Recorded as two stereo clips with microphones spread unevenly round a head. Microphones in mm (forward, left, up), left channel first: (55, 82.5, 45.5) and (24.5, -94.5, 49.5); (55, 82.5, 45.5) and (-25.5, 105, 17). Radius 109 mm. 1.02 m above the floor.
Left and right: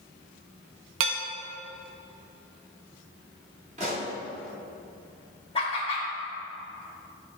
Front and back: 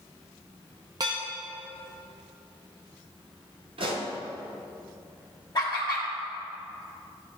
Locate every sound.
1.0 s dishes clattering: 125° right, 0.7 m
3.8 s a pop: 160° right, 1.3 m
5.5 s laughter: 20° left, 1.8 m